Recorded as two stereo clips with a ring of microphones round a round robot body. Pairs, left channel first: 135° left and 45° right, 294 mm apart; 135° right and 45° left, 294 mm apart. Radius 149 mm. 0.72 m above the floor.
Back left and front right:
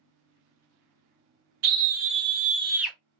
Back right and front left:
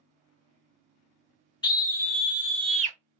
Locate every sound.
1.6 s a scream: 60° right, 1.0 m; by 3.0 s 55° left, 0.7 m